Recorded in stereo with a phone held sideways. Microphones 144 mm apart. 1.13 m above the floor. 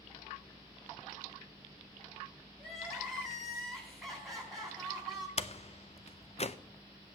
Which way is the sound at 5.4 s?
45° left (ahead or behind).